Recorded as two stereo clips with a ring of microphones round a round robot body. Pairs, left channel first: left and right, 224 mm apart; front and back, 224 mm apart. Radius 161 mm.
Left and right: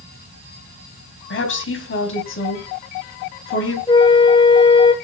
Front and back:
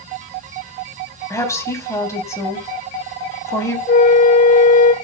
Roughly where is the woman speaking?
Left.